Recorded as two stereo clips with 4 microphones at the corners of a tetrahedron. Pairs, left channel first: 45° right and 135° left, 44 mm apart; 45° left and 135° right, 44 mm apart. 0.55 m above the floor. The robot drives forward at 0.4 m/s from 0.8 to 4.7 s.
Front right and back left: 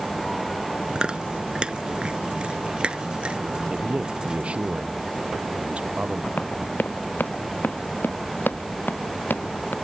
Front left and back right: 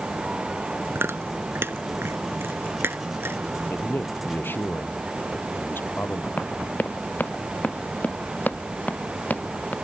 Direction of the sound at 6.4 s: Straight ahead.